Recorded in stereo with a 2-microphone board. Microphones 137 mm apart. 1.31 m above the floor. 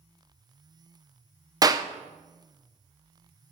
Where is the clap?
25° right (ahead or behind), 0.6 m.